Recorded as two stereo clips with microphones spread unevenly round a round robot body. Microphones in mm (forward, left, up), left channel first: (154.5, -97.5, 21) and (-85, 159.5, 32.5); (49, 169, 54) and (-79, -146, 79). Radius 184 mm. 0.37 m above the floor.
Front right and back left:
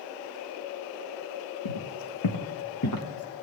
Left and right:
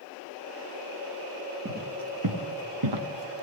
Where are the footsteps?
60° right, 1.6 m; by 3.4 s 115° right, 1.4 m.